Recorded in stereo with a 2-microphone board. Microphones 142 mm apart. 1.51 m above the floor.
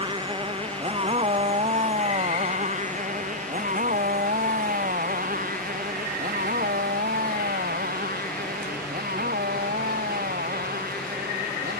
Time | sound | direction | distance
0.0 | a motorcycle | 35° right (ahead or behind) | ?